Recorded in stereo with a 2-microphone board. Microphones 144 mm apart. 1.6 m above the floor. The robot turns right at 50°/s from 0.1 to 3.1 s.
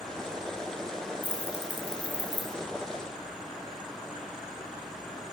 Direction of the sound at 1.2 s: 30° left (ahead or behind).